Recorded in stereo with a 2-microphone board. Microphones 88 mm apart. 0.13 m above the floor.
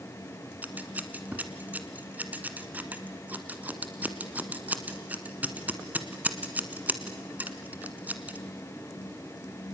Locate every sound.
0.6 s scissors: 20° right (ahead or behind), 1.5 m